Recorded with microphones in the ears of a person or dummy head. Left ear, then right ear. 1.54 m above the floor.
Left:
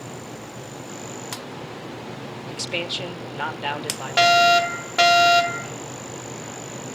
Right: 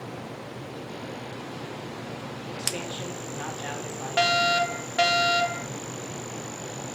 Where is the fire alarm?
10° left (ahead or behind), 1.2 m.